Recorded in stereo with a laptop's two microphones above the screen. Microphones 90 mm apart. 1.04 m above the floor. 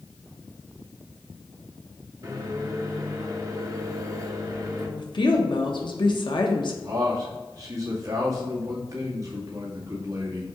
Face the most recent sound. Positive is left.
turn(degrees=-40)  # may be behind; listen again after turning